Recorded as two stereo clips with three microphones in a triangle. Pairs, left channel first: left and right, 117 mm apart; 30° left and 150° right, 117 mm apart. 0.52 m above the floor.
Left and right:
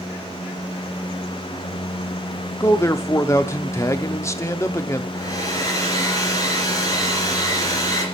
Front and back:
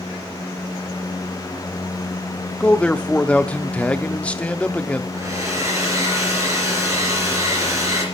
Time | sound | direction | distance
2.6 | a man speaking | 95° left | 0.7 m
5.1 | a hair dryer | 150° left | 3.5 m